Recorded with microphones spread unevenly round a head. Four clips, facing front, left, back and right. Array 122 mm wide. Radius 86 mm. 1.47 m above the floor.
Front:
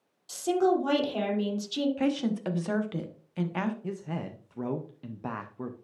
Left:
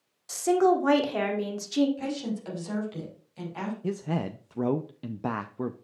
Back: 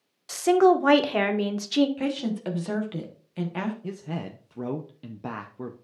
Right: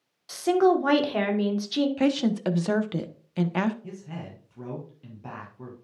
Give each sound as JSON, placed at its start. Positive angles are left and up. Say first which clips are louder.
{"t": 0.3, "sound": "a woman speaking", "louder": "right 1 dB, back 6 dB", "azimuth_deg": -170, "distance_m": 1.5}
{"t": 2.0, "sound": "a woman speaking", "louder": "right 9 dB, even", "azimuth_deg": -105, "distance_m": 1.1}
{"t": 3.8, "sound": "a man speaking", "louder": "left 9 dB, back 1 dB", "azimuth_deg": 110, "distance_m": 0.5}